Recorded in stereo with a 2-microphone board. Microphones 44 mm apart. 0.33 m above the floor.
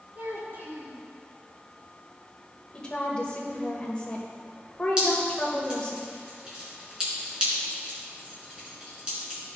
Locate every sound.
0.1 s a child speaking: 65° right (ahead or behind), 3.5 m
2.7 s a woman speaking: 25° left (ahead or behind), 1.4 m
5.0 s dripping: 20° right (ahead or behind), 3.5 m